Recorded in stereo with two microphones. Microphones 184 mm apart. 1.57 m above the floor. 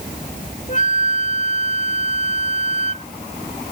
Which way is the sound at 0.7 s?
45° left (ahead or behind).